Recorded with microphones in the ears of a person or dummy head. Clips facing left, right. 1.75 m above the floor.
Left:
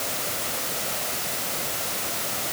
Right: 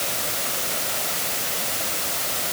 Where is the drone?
No drone in this recording.